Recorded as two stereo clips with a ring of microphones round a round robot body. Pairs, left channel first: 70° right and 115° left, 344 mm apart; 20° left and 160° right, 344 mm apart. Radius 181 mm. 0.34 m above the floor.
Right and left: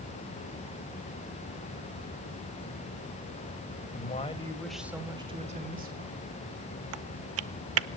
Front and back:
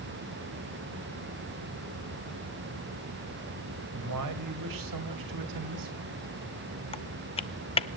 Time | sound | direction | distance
3.9 | a man speaking | 125° right | 2.5 m
6.9 | typing on a keyboard | 90° left | 0.6 m